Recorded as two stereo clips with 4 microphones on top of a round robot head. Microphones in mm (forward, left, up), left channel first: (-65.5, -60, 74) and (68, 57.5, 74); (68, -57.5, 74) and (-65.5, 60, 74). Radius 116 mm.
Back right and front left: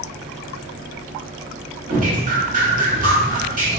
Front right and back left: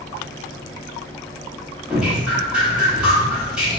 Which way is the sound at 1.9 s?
55° left.